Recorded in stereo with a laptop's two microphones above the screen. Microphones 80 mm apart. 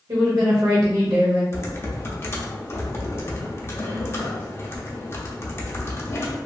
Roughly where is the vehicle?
No vehicle in this recording.